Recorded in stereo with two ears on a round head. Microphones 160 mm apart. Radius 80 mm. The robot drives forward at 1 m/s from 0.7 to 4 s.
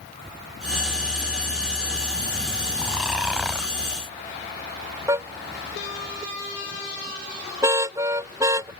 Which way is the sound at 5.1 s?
15° right (ahead or behind).